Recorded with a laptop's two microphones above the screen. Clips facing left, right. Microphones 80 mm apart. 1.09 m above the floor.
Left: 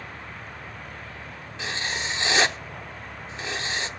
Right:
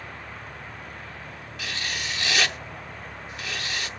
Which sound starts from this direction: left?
Writing, at 1.6 s.